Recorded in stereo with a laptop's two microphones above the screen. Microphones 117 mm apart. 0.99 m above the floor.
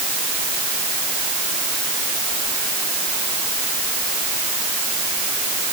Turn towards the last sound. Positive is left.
No sound to turn to.